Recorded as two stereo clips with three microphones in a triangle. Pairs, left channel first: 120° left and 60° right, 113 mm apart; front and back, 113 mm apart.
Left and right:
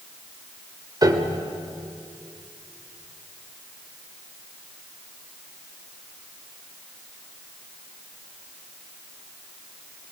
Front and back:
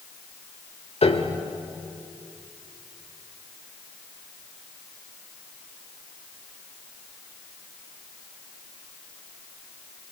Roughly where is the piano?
Ahead.